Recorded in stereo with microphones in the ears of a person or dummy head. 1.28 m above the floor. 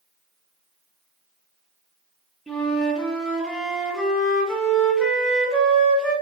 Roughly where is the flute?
Centre.